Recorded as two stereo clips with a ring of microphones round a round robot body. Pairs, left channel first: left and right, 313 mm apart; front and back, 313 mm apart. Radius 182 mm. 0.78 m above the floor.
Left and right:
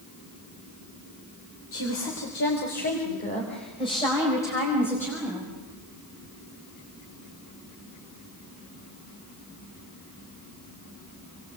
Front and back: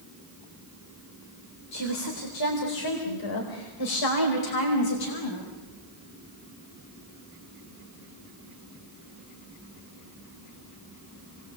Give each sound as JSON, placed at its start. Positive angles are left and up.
{"t": 1.7, "sound": "a woman speaking", "azimuth_deg": 40, "distance_m": 3.5}